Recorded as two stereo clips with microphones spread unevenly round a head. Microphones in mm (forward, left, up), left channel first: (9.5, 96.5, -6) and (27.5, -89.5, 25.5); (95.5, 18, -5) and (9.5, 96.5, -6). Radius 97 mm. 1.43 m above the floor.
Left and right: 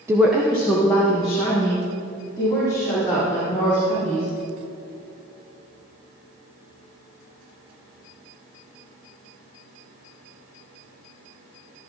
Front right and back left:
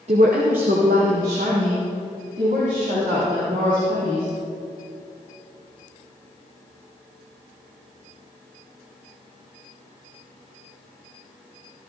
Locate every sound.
0.1 s a woman speaking: 160° right, 0.6 m; by 4.3 s 170° left, 5.5 m